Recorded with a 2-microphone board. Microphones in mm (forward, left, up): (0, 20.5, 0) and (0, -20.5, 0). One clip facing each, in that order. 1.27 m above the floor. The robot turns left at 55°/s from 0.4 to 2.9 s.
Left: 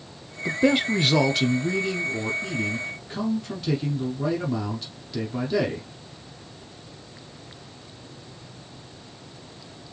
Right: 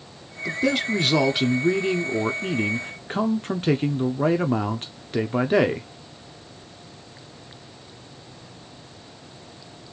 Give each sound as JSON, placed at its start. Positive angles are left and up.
{"t": 0.5, "sound": "a man speaking", "azimuth_deg": 35, "distance_m": 0.6}